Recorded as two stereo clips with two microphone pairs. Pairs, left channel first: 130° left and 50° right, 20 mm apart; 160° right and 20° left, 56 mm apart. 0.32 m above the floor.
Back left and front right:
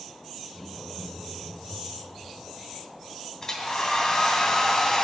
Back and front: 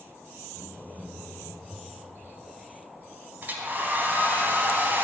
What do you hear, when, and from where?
0.5 s laughter: 125° left, 2 m; by 2.1 s 35° left, 1.4 m
3.4 s a hair dryer: 70° left, 1.2 m